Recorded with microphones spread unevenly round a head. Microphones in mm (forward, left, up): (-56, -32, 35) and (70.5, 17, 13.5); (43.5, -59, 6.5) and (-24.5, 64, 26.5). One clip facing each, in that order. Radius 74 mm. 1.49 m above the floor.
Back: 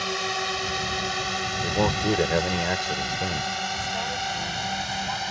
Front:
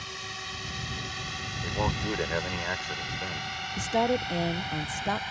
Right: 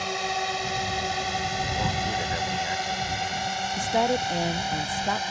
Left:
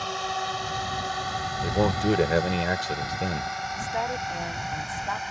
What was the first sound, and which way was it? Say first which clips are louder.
A drone: back 14 dB, right 1 dB; 140° right.